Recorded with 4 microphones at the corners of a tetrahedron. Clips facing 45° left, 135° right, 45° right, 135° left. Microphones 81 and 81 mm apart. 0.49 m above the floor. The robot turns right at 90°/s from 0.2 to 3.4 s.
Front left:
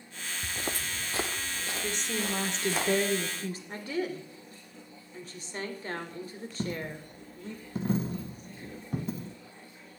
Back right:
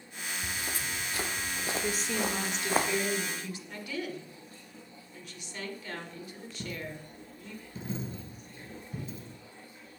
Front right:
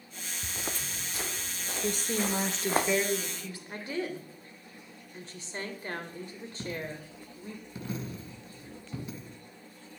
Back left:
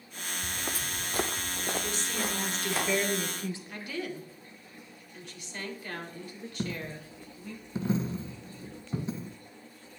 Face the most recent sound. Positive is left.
turn(degrees=75)